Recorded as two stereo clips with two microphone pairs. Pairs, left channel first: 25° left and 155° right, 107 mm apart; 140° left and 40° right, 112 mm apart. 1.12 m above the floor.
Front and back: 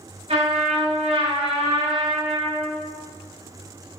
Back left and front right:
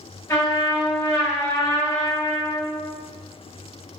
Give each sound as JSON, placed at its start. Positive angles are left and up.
{"t": 0.3, "sound": "a trumpet", "azimuth_deg": -160, "distance_m": 3.5}